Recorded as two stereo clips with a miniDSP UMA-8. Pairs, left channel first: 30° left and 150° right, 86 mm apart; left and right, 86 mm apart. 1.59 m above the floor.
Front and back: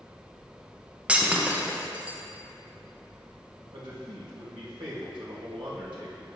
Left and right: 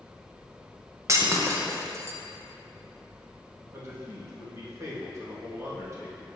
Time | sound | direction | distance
1.1 | breaking glass | 85° right | 0.8 m
3.7 | a man speaking | 140° right | 1.8 m